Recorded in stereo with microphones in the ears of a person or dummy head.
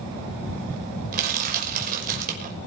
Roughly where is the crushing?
Right.